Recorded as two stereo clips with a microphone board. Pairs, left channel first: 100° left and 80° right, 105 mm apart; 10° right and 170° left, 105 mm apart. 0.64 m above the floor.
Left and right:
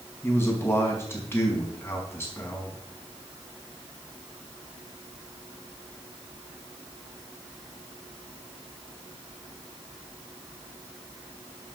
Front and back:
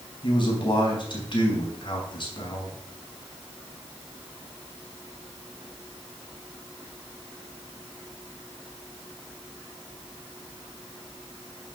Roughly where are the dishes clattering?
I don't hear dishes clattering.